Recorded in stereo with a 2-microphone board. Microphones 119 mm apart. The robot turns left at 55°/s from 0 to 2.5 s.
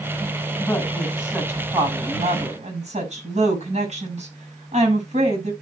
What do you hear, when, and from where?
0.6 s a woman speaking: 30° left, 6 m; by 5.5 s 75° right, 6 m